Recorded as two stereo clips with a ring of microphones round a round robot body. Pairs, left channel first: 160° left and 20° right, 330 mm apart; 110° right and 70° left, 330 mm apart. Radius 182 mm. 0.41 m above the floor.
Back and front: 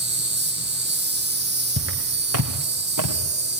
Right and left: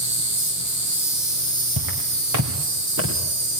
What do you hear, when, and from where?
0.0 s an insect: 35° left, 4 m
1.8 s footsteps: 35° left, 2 m; by 3.1 s 10° left, 2 m